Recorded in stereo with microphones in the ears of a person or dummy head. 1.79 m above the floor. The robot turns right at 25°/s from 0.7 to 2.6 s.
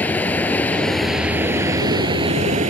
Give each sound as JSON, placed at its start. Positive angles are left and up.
{"t": 0.0, "sound": "running water", "azimuth_deg": 175}